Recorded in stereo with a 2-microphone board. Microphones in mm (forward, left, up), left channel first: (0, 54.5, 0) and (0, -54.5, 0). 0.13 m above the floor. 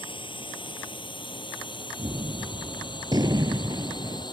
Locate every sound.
0.0 s a drone: 50° left (ahead or behind); by 4.3 s 40° left (ahead or behind)
2.0 s a gunshot: 40° right (ahead or behind)